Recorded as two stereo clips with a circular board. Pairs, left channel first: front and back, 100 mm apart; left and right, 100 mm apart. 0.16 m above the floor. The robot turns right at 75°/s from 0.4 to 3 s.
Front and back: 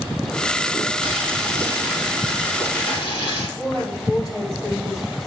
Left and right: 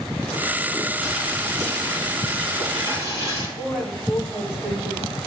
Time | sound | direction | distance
1.0 | boiling | straight behind | 4.5 m
3.6 | a woman speaking | 55° right | 4 m